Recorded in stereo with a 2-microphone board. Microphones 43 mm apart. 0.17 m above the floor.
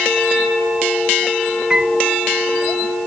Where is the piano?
15° right (ahead or behind).